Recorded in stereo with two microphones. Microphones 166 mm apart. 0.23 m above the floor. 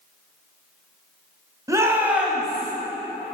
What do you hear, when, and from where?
1.7 s a shout: 20° right (ahead or behind), 1.0 m; by 2.7 s 5° left (ahead or behind), 1.1 m